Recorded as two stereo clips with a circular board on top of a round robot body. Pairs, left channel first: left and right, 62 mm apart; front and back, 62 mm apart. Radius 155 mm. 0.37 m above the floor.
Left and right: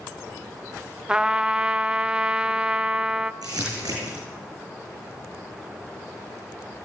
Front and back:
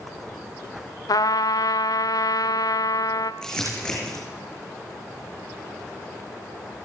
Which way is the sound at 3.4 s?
80° right.